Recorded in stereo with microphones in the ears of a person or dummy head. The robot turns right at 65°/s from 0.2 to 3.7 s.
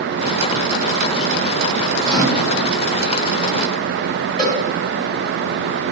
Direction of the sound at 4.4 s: Centre (ahead or behind).